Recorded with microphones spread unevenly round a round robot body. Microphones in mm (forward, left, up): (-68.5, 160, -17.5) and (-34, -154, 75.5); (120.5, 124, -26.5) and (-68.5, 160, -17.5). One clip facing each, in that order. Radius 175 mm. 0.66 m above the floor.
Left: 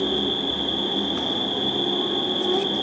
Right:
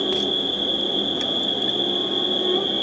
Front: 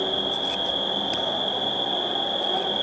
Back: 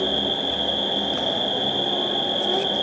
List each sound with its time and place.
0.0 s an insect: 165° left, 2.5 m